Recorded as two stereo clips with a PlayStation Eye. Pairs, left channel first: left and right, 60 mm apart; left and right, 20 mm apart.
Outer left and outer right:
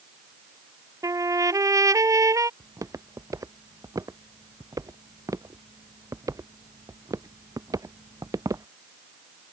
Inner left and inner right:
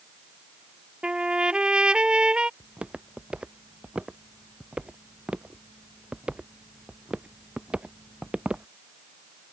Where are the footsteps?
65° right (ahead or behind); by 8.7 s 70° right (ahead or behind).